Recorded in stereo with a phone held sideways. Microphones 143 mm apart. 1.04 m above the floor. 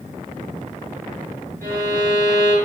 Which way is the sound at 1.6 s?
80° right.